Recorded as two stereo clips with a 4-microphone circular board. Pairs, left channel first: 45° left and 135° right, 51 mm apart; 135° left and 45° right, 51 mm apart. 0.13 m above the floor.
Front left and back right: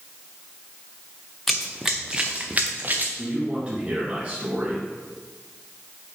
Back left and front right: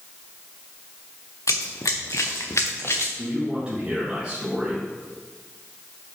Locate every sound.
1.5 s running footsteps: 130° left, 0.8 m; by 3.1 s 175° left, 1.3 m
3.2 s a man speaking: 100° right, 2.0 m